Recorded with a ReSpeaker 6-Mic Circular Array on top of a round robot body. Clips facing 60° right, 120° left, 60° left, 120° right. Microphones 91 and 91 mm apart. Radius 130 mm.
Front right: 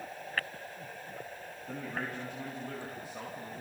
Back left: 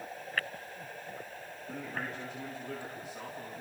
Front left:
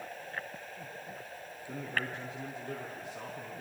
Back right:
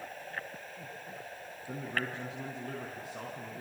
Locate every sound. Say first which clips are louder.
1.7 s a man speaking: front right 1 dB, even; 105° right, 6.5 m